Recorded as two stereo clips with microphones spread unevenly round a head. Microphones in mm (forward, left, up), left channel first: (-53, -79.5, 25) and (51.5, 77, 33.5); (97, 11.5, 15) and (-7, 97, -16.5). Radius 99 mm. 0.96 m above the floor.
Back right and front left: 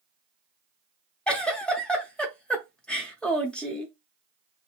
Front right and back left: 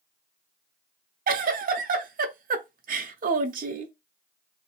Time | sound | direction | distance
1.3 | a giggle | 150° left | 0.7 m